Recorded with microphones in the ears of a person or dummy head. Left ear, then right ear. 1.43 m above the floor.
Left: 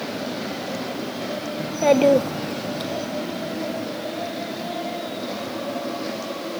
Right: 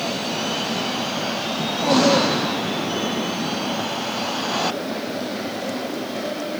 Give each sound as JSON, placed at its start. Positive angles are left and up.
{"t": 1.6, "sound": "a child speaking", "side_deg": 10, "distance_m": 0.7}